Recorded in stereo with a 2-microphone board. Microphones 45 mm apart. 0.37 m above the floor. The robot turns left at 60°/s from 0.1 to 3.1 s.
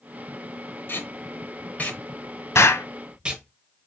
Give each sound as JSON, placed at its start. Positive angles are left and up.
{"t": 0.9, "sound": "tape being pulled", "side_deg": 50, "distance_m": 0.9}
{"t": 2.5, "sound": "an explosion", "side_deg": 80, "distance_m": 0.5}